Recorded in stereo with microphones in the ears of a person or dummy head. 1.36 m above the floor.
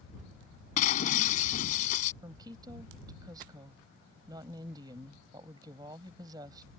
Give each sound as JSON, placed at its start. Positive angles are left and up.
{"t": 0.8, "sound": "breaking glass", "side_deg": 45}
{"t": 2.2, "sound": "a woman speaking", "side_deg": -25}